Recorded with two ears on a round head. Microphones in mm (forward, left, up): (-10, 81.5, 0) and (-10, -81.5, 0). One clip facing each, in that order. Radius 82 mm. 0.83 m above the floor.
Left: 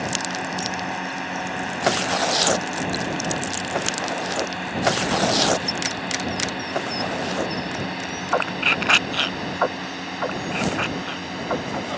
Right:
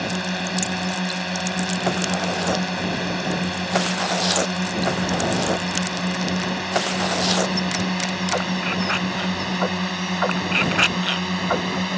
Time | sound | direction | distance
0.0 | a drone | 40° right (ahead or behind) | ?